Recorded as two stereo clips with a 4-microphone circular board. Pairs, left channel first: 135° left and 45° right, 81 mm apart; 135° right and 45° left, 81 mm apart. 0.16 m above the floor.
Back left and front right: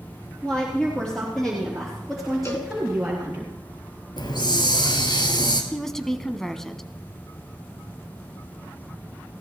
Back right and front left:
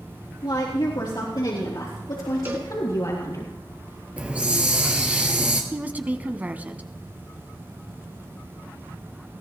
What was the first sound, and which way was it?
A woman speaking, 145° right.